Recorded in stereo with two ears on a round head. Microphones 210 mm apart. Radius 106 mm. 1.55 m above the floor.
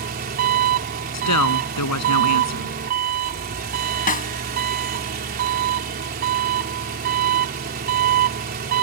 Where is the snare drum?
35° left (ahead or behind).